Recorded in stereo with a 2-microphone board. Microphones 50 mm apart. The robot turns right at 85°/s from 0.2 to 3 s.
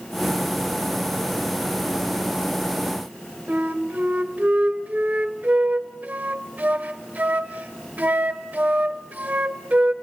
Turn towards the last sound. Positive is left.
turn(degrees=-30)  # may be behind; listen again after turning